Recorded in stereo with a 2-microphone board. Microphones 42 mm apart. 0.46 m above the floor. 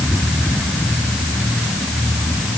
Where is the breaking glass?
No breaking glass in this recording.